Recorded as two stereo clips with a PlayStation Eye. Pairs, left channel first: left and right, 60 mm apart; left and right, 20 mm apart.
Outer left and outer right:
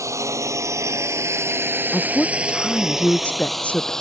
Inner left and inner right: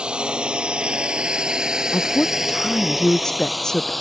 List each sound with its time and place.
0.0 s a drone: 55° right (ahead or behind); by 4.0 s 10° left (ahead or behind)
1.9 s a woman speaking: 20° left (ahead or behind)